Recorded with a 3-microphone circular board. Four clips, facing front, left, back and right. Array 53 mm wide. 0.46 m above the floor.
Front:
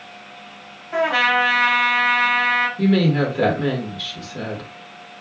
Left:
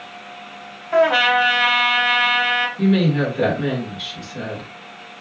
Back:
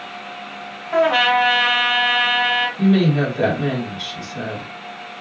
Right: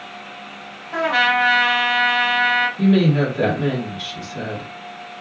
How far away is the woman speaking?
About 1.5 m.